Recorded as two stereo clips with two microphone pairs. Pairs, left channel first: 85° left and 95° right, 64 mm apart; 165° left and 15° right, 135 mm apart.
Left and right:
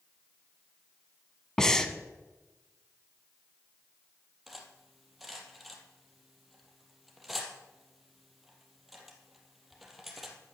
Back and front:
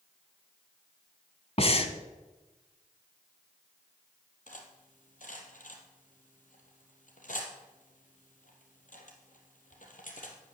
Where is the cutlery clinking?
Straight behind, 3.5 m.